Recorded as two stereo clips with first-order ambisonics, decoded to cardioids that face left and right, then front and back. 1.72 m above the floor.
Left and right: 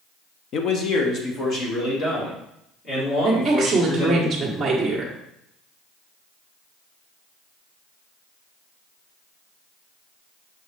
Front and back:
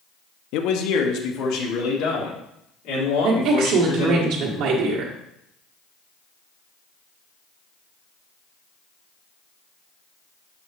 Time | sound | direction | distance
0.5 | a man speaking | 35° left | 0.7 m
3.2 | a woman speaking | 175° right | 1.2 m